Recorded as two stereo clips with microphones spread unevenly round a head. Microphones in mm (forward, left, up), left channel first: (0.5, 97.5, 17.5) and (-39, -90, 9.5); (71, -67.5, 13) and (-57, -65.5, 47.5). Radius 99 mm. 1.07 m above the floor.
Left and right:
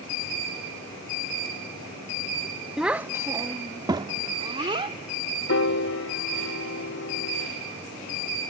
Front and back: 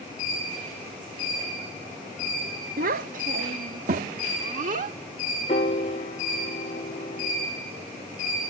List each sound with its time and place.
2.8 s a child speaking: 170° left; by 5.0 s 165° right
5.5 s a piano: 50° left